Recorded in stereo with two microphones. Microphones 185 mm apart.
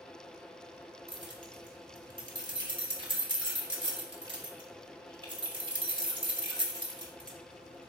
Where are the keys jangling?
25° right (ahead or behind), 0.7 m.